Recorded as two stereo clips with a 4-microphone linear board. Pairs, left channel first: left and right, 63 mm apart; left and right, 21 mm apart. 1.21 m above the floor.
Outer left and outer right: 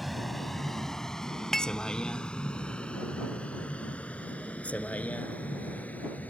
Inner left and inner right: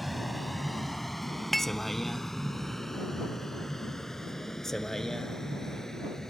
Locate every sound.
0.0 s a vehicle: centre (ahead or behind); by 6.3 s 25° left (ahead or behind)
1.5 s dishes clattering: 10° left (ahead or behind)